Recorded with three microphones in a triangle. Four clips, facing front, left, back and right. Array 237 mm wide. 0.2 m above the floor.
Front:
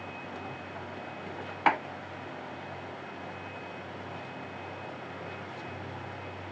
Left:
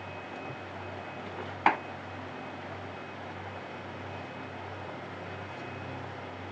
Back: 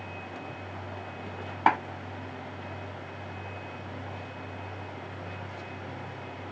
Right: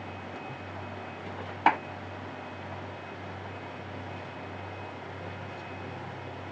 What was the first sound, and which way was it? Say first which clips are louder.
A clap: right 2 dB, back 2 dB; 160° right.